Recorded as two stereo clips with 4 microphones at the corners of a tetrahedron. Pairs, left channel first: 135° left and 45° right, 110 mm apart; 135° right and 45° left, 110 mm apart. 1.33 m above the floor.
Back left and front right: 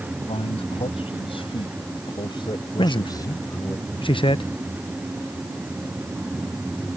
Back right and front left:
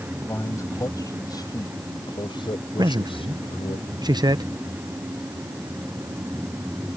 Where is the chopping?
No chopping in this recording.